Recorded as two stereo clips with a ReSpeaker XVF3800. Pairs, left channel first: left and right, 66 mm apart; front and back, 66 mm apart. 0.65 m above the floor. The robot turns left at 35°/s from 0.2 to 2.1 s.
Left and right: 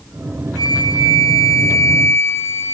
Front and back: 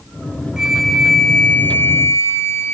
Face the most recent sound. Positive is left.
turn(degrees=45)